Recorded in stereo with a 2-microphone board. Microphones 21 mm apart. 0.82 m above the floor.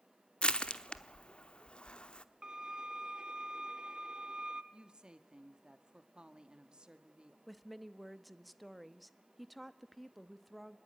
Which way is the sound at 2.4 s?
35° right (ahead or behind).